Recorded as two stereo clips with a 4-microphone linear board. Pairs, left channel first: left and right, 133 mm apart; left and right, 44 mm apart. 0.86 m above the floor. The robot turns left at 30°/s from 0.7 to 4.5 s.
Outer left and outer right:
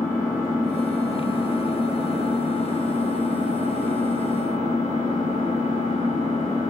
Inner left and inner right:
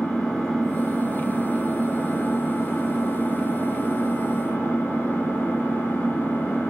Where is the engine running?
165° left, 1.5 m; by 6.7 s 55° left, 1.5 m.